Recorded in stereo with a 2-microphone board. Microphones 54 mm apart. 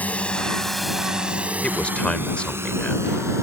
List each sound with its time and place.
0.0 s a drone: 25° left (ahead or behind); by 3.4 s 60° right (ahead or behind)
1.6 s a man speaking: 20° left (ahead or behind)